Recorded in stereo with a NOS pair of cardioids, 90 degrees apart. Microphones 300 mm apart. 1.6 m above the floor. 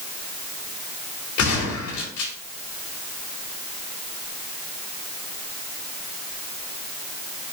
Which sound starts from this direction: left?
A gunshot, at 1.4 s.